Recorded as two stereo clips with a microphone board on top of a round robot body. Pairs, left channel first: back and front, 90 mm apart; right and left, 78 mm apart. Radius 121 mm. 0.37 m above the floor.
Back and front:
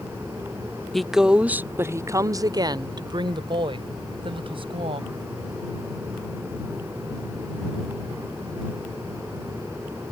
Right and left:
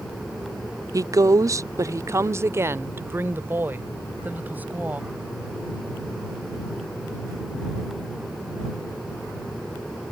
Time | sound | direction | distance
0.9 | a woman speaking | 95° left | ?